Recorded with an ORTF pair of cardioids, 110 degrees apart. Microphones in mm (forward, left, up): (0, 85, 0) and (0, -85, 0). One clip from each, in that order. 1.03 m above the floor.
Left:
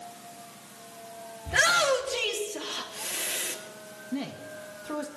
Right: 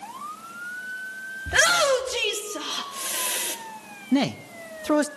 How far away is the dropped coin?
I don't hear a dropped coin.